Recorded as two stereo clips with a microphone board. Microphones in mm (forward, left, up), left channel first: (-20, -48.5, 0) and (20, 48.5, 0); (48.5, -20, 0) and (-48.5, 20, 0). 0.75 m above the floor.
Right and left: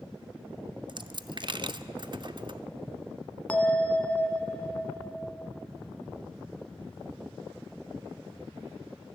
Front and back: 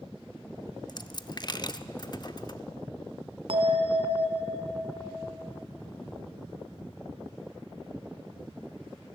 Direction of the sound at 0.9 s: 25° left.